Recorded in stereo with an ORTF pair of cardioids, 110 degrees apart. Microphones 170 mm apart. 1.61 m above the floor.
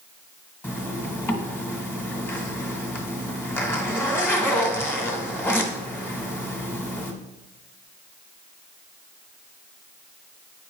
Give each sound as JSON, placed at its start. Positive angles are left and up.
{"t": 0.6, "sound": "a zipper", "azimuth_deg": 10, "distance_m": 1.6}